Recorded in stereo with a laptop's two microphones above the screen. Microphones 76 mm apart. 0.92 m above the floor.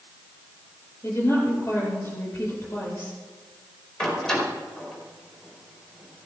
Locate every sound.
1.0 s a woman speaking: 35° left (ahead or behind), 4 m
4.0 s a door slam: 5° left (ahead or behind), 2.5 m